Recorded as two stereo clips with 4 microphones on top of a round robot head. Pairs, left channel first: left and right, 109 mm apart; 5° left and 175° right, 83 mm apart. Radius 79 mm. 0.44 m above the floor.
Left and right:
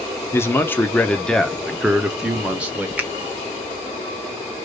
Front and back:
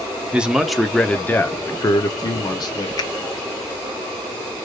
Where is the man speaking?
125° left, 0.9 m; by 2.9 s 15° right, 1.3 m.